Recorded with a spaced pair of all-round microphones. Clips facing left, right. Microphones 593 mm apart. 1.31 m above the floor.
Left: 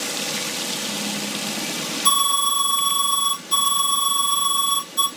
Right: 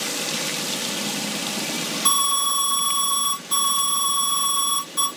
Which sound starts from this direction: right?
An alarm, at 2.0 s.